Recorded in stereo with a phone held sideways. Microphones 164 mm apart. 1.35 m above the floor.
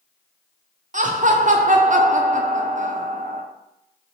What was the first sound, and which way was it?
Laughter, 50° right (ahead or behind).